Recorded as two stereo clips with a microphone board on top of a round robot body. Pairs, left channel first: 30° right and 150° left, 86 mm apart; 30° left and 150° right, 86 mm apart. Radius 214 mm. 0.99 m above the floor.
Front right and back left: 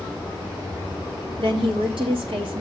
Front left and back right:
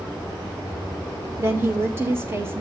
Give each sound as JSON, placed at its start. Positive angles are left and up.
{"t": 1.4, "sound": "a woman speaking", "azimuth_deg": 150, "distance_m": 2.5}